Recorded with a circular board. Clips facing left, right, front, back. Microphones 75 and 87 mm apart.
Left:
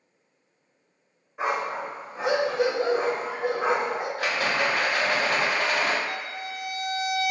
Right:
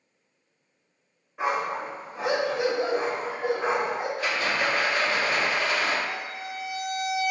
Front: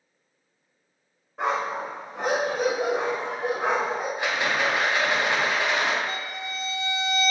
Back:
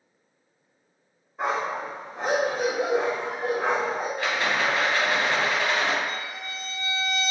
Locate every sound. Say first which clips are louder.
1.4 s a dog barking: even, front 1 dB; 10° left, 1.5 m; by 4.1 s 90° left, 1.2 m
4.2 s a rattle: left 3 dB, even; 70° left, 0.6 m
6.0 s a violin: left 1 dB, front 1 dB; 120° left, 1.2 m